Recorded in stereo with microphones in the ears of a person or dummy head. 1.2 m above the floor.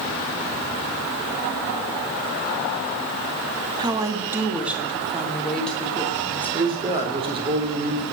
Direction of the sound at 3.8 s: 30° right (ahead or behind).